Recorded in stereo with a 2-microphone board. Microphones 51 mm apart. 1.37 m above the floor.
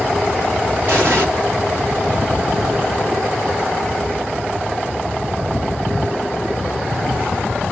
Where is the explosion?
55° right (ahead or behind), 1.6 m.